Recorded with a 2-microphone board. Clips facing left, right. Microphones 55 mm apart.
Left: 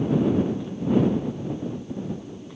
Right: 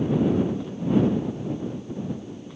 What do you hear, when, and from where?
Only background noise.